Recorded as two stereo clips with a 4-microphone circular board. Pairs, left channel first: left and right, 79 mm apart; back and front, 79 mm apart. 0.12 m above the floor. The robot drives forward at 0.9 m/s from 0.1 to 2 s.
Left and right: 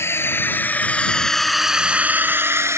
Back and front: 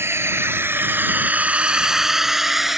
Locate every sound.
0.0 s a drone: 45° left; by 2.8 s 85° right